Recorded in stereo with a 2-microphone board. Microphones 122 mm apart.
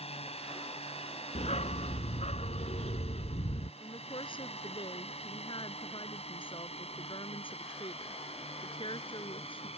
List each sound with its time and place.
0.0 s a drone: 55° left (ahead or behind)
1.4 s a dog barking: 65° left (ahead or behind)
3.8 s a woman speaking: 45° left (ahead or behind)